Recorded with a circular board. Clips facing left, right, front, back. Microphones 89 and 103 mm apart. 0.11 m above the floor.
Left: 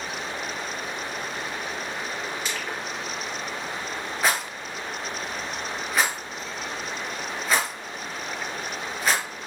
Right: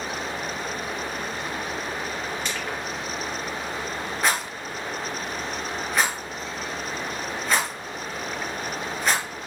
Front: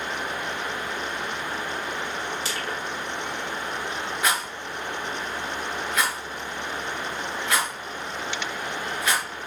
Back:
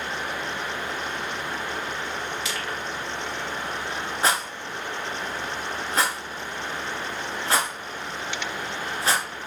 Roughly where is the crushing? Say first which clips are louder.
Right 1 dB, even; ahead.